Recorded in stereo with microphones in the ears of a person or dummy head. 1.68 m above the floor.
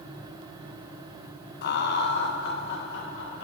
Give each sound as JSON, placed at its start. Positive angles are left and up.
{"t": 1.6, "sound": "laughter", "side_deg": 60, "distance_m": 1.0}